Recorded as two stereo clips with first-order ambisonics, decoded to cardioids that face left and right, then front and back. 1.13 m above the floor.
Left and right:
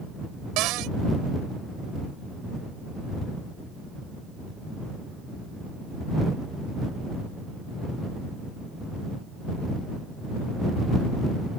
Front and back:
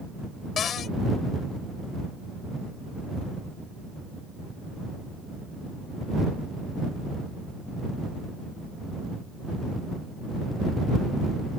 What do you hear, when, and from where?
0.6 s a cupboard door: 60° right